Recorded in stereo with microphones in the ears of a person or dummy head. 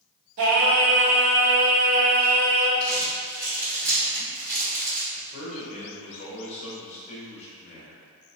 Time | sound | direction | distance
0.4 | singing | 65° right (ahead or behind) | 1.0 m
2.8 | crumpling | 15° right (ahead or behind) | 2.0 m
5.1 | a man speaking | 30° left (ahead or behind) | 1.2 m